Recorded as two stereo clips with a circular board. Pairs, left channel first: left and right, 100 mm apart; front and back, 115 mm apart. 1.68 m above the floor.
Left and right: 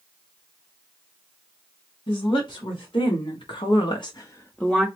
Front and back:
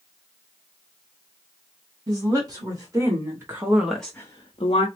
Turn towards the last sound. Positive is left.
turn(degrees=-10)